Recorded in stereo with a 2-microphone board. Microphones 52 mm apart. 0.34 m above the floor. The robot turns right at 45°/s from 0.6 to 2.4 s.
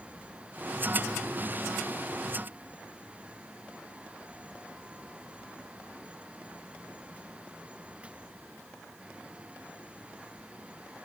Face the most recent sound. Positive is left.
No sound to turn to.